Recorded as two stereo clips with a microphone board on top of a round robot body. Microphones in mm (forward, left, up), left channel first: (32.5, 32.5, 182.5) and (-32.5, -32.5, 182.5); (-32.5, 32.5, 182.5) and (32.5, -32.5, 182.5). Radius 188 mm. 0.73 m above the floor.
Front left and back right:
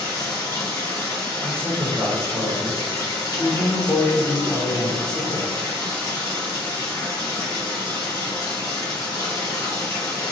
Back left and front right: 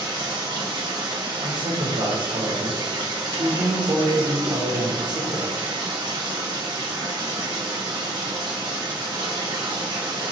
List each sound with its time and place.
0.0 s running water: 10° right, 1.5 m
1.4 s a man speaking: 35° right, 1.6 m